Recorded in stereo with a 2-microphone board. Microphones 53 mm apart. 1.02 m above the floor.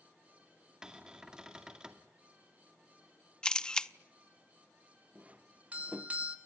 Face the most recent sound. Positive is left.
turn(degrees=-25)  # may be behind; listen again after turning